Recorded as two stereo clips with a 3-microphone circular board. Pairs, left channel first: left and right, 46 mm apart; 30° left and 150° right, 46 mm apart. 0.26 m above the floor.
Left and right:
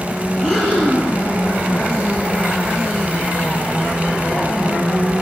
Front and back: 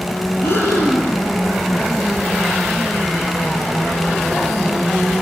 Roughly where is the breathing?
Ahead.